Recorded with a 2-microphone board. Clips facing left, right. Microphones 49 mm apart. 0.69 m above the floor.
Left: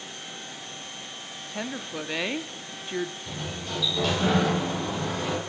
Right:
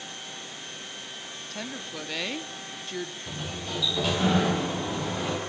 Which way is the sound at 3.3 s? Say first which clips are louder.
Left 1 dB; 5° right (ahead or behind).